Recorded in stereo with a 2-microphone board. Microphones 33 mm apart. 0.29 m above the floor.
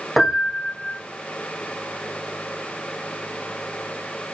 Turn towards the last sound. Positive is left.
turn(degrees=0)  # may be behind; listen again after turning